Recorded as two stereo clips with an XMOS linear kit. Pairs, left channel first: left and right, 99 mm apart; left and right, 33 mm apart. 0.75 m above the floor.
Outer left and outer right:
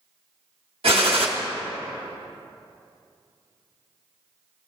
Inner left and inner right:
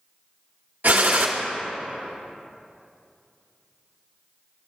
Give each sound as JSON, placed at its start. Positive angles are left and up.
{"t": 0.8, "sound": "a gunshot", "side_deg": -70, "distance_m": 0.9}